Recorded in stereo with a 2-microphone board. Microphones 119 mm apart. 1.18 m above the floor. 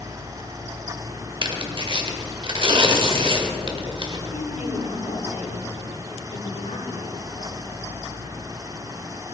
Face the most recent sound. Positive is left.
turn(degrees=85)